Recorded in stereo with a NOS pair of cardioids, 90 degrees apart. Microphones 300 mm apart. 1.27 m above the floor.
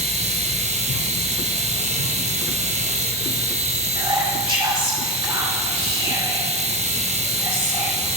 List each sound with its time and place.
0.0 s a machine running: 25° right, 1.0 m
4.0 s whispering: 15° right, 4.5 m